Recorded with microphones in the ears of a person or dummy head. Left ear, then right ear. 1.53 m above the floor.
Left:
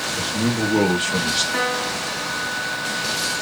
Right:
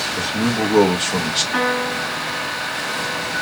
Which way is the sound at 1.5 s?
25° right (ahead or behind).